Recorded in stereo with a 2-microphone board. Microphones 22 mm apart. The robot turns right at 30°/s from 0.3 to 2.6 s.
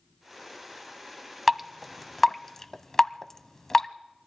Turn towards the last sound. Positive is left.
turn(degrees=20)  # may be behind; listen again after turning